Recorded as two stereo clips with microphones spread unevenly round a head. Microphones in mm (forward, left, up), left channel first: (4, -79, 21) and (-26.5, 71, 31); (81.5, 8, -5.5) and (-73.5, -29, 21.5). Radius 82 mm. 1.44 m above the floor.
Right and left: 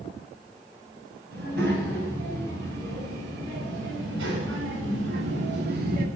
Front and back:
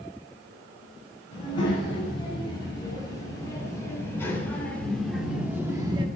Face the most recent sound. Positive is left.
turn(degrees=135)